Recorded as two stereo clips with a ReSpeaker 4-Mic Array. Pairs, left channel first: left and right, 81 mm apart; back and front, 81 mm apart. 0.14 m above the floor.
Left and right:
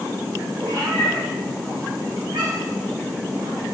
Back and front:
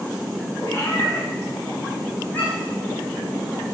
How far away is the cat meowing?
About 3 m.